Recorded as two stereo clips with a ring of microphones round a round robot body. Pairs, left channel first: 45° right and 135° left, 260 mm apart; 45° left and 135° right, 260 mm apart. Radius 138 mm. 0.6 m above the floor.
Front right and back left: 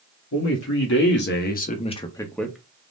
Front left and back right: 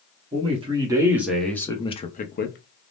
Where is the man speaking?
70° right, 1.0 m; by 2.9 s 55° left, 0.8 m.